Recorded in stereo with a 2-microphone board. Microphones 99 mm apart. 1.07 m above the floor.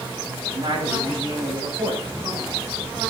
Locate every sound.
0.5 s a man speaking: 50° right (ahead or behind), 8.5 m; by 2.5 s 60° right (ahead or behind), 5.5 m